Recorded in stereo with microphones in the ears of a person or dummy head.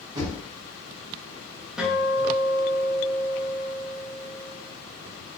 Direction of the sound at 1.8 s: 5° right (ahead or behind).